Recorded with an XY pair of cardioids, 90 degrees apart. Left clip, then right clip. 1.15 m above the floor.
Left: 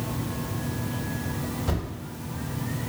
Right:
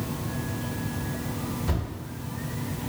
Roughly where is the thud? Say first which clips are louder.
Left 2 dB; ahead left.